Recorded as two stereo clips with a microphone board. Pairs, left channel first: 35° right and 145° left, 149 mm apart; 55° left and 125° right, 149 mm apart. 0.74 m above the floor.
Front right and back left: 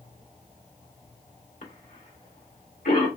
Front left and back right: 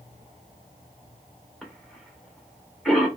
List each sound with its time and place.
1.6 s a cough: 30° right, 1.9 m